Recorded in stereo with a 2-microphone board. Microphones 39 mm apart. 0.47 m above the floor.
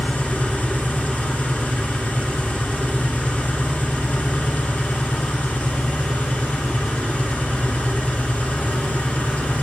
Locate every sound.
0.0 s an engine running: 45° left (ahead or behind), 2 m